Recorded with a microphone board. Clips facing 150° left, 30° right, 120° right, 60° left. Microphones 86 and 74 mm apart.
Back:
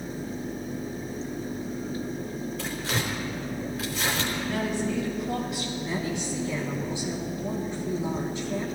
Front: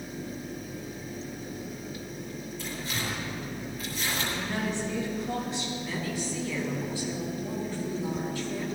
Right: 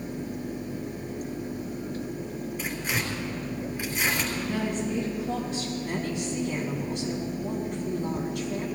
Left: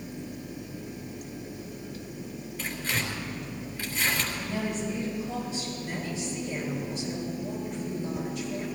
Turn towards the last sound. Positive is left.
turn(degrees=-140)